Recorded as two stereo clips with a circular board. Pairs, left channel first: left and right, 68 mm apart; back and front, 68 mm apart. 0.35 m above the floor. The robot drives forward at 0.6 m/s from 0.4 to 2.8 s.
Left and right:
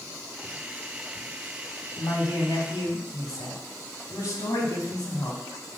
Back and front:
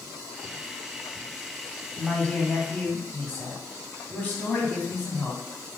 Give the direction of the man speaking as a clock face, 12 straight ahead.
8 o'clock.